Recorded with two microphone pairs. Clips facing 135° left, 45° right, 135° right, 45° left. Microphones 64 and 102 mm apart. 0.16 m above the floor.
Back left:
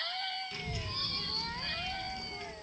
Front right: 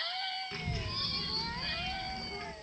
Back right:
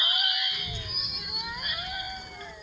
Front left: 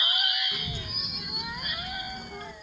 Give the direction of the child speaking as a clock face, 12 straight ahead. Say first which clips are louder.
Front right 1 dB, front left 2 dB; 12 o'clock.